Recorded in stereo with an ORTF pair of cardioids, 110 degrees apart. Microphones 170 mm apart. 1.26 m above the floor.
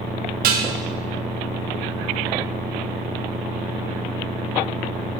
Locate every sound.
0.4 s dishes clattering: 65° right, 0.8 m